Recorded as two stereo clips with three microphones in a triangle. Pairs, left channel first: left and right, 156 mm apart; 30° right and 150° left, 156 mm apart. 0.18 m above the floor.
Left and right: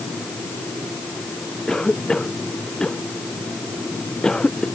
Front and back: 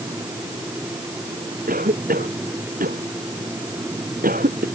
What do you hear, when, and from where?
1.7 s a cough: 175° left